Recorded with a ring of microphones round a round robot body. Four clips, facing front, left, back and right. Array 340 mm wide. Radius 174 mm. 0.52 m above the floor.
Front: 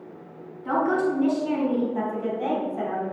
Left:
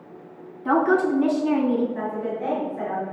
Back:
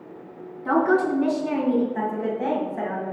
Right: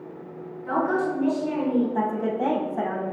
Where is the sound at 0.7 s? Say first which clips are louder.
Left 5 dB, back 3 dB; 110° left, 6 m.